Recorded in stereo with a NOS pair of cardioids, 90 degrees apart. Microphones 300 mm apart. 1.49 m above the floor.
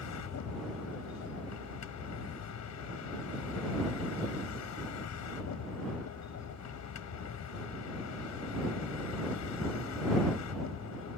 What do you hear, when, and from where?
0.0 s a vehicle: 65° left